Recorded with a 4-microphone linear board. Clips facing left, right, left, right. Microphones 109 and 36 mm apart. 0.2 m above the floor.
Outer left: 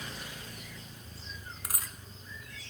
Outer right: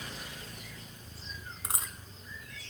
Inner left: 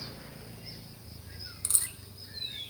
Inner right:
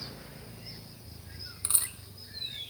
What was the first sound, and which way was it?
A dropped coin, 25° right (ahead or behind).